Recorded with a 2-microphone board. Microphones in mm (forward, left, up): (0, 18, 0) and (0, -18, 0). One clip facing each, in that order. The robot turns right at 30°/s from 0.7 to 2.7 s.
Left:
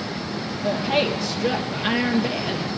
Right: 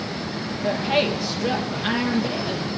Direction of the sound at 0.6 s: 15° right.